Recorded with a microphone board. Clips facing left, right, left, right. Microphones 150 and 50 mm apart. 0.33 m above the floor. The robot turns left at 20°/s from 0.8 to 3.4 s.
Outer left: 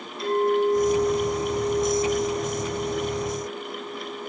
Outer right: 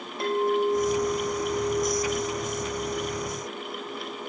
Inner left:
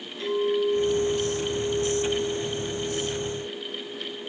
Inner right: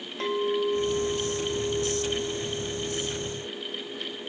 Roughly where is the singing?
No singing in this recording.